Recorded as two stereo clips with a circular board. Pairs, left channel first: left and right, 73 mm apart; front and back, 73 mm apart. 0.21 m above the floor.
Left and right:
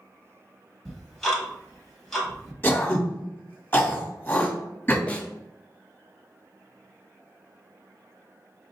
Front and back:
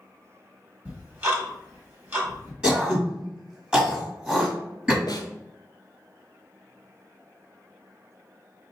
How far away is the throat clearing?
About 1.6 m.